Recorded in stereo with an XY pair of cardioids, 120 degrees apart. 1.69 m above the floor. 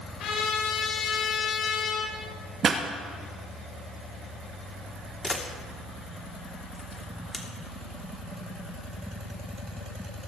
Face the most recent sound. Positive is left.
turn(degrees=5)